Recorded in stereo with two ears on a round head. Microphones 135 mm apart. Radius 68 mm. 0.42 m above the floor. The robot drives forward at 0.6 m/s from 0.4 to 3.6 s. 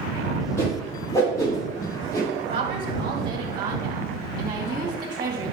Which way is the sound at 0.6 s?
20° left (ahead or behind).